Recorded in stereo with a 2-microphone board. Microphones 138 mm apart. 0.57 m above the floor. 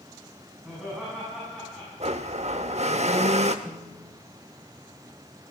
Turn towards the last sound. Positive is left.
turn(degrees=-40)  # may be behind; listen again after turning